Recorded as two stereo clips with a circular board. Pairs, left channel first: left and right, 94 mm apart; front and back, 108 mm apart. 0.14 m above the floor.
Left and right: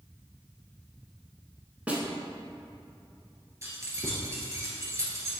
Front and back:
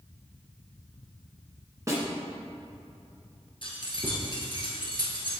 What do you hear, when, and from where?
1.9 s a snare drum: 155° right, 1.4 m
3.6 s keys jangling: 35° right, 1.6 m